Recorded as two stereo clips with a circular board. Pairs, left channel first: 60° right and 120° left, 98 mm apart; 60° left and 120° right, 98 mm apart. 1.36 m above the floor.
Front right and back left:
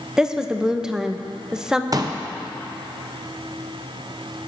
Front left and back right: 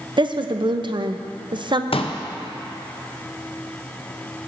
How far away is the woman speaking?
About 0.6 m.